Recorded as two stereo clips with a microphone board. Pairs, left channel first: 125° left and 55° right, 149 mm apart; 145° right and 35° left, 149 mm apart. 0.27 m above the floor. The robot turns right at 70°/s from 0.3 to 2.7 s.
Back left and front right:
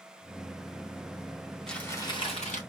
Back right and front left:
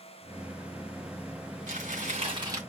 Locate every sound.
1.7 s crumpling: 35° left, 3 m; by 2.6 s 105° left, 3 m